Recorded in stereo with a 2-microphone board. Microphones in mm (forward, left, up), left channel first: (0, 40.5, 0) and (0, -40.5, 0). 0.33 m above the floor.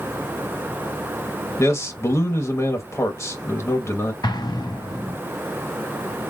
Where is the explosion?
65° left (ahead or behind), 1.5 m.